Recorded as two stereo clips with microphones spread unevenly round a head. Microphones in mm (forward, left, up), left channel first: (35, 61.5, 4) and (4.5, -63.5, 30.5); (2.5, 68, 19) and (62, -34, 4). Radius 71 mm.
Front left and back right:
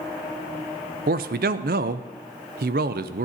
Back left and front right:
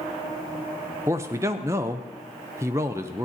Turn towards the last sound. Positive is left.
turn(degrees=-130)